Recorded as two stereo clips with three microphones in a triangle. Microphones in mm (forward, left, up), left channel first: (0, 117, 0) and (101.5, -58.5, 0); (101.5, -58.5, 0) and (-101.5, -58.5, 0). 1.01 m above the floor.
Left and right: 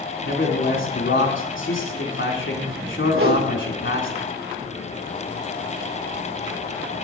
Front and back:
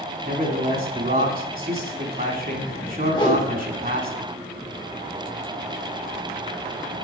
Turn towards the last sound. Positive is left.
turn(degrees=-65)